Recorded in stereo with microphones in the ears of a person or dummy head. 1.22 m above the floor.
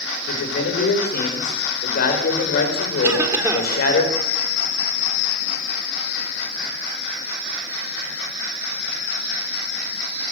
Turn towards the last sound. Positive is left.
turn(degrees=-15)  # may be behind; listen again after turning